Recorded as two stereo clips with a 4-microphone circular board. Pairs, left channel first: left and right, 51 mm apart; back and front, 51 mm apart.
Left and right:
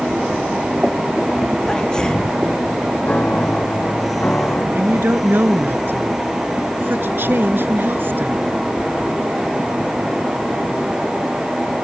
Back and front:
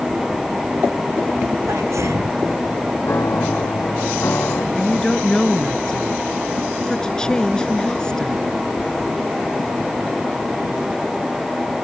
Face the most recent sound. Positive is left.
turn(degrees=-110)